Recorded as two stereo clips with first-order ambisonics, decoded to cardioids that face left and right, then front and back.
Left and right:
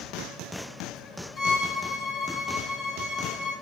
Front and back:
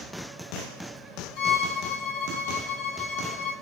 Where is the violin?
10° right, 2.0 m.